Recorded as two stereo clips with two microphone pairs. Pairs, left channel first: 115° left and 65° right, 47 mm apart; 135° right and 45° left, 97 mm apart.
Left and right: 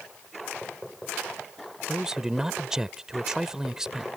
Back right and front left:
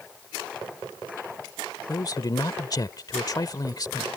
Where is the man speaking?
135° right.